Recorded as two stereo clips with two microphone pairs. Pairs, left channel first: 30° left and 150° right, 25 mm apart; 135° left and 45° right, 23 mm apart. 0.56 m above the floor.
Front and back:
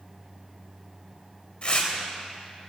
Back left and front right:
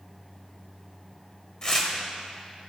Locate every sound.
1.6 s tearing paper: 70° left, 1.9 m